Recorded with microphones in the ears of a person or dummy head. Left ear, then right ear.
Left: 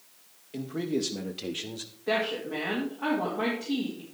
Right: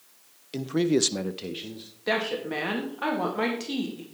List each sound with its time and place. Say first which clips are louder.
0.5 s a man speaking: right 7 dB; 90° right, 1.1 m; by 1.9 s 30° left (ahead or behind), 0.9 m
2.1 s a woman speaking: right 1 dB; 75° right (ahead or behind), 1.9 m